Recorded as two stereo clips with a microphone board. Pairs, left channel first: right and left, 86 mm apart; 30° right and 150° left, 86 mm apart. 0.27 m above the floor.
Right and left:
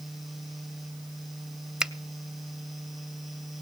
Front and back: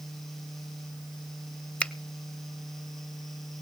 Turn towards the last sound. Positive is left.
turn(degrees=25)